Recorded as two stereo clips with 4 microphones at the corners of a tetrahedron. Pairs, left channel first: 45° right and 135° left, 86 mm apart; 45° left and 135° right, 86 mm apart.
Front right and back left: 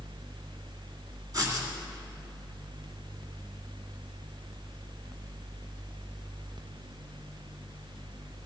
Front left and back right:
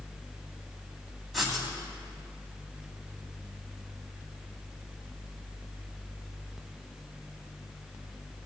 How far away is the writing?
About 2 m.